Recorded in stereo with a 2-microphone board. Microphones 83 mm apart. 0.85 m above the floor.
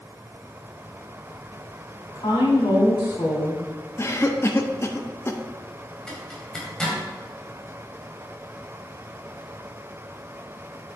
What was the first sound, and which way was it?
A woman speaking, 70° left (ahead or behind).